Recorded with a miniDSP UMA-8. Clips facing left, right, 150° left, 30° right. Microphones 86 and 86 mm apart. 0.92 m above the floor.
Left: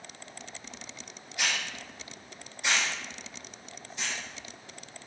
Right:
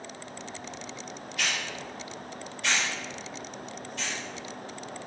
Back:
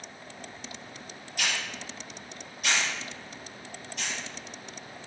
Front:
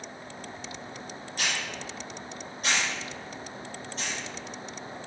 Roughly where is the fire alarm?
No fire alarm in this recording.